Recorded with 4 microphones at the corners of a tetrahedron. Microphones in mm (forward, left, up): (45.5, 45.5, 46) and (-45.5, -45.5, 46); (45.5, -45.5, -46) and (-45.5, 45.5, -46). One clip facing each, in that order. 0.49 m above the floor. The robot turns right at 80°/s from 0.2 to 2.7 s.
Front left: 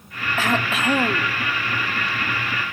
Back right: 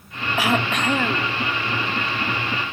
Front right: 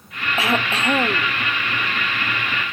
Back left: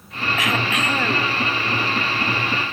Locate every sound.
0.4 s throat clearing: 70° right, 0.7 m; by 1.3 s 10° left, 0.7 m